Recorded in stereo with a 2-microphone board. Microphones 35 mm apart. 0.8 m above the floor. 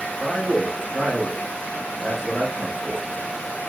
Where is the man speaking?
Centre (ahead or behind), 0.7 m.